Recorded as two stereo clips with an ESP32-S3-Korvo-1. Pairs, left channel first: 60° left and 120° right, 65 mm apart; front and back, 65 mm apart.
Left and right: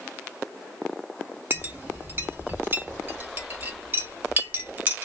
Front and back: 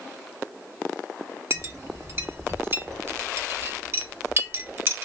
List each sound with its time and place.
1.5 s a clink: 160° right, 0.8 m